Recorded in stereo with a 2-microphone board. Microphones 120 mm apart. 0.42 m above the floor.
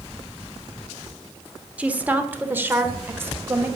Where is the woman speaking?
10° right (ahead or behind), 1.1 m; by 3.7 s 20° right (ahead or behind), 1.8 m.